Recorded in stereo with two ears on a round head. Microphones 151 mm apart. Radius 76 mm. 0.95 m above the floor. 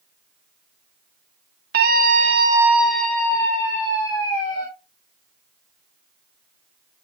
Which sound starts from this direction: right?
A scream, at 1.7 s.